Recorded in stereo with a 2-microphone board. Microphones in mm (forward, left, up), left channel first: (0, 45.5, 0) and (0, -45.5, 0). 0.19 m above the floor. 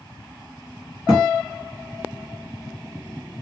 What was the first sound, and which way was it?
A thud, 10° right (ahead or behind).